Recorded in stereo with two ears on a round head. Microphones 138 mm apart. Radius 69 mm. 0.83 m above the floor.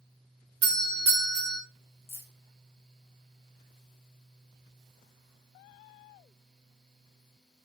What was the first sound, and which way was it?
A doorbell, 45° right (ahead or behind).